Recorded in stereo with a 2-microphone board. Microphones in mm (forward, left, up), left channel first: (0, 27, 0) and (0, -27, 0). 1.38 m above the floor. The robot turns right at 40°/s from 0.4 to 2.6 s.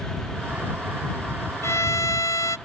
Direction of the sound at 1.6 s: 60° left.